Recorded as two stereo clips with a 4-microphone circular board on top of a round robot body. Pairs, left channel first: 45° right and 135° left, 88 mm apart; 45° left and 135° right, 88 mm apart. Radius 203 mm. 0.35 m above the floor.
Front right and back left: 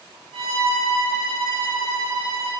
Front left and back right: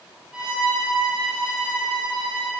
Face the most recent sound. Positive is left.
turn(degrees=150)